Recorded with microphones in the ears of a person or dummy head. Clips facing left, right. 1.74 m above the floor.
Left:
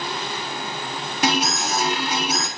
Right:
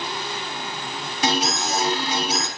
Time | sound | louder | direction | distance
1.2 | an alarm | left 1 dB | 55° left (ahead or behind) | 7 m